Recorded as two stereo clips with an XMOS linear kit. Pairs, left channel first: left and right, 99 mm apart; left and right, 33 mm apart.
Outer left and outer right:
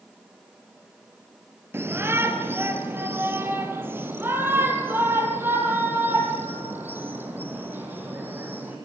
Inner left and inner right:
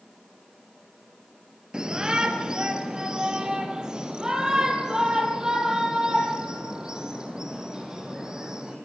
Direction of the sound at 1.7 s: 25° right (ahead or behind).